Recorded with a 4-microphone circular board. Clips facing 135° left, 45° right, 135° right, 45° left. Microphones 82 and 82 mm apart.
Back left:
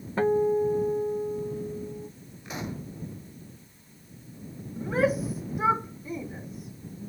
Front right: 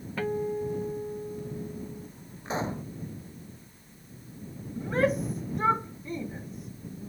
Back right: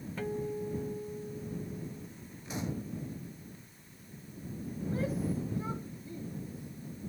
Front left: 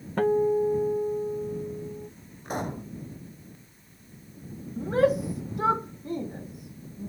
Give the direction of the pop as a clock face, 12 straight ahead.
12 o'clock.